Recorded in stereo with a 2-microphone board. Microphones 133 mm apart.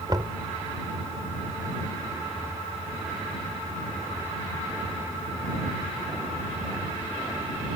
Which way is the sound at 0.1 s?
35° right (ahead or behind).